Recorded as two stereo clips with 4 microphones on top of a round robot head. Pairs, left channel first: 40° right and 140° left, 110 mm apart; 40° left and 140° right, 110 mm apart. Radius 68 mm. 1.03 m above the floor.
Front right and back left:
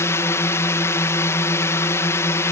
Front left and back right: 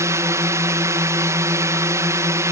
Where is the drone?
90° right.